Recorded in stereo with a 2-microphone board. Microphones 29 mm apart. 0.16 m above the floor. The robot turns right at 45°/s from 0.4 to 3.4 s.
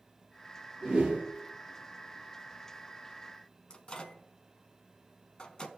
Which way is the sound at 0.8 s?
35° right (ahead or behind).